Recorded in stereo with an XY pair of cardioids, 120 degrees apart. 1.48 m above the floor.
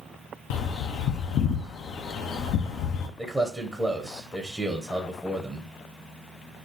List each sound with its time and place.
0.5 s a bird: 60° left, 0.5 m
3.2 s a man speaking: straight ahead, 0.7 m